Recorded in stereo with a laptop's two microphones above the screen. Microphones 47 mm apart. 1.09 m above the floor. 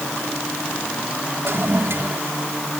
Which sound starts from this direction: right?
A toilet flushing, at 1.4 s.